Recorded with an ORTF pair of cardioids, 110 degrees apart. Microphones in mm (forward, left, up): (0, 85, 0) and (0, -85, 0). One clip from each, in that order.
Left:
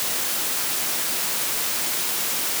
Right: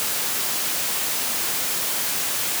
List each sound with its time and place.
Only background noise.